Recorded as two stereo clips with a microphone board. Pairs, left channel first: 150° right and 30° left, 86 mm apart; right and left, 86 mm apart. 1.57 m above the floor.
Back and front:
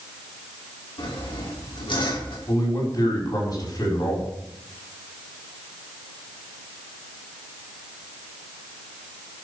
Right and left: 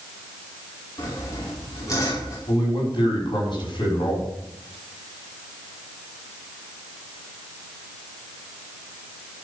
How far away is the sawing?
About 4 m.